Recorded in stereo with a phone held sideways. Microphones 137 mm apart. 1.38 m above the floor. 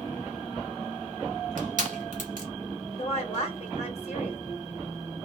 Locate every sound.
1.6 s crushing: 70° right (ahead or behind), 1.4 m
3.0 s a woman speaking: 50° left (ahead or behind), 1.0 m